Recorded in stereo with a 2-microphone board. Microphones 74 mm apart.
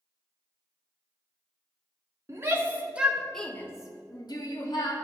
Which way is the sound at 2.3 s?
35° right (ahead or behind).